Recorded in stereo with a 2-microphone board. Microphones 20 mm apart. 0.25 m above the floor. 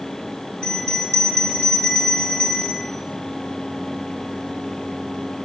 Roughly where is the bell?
Left.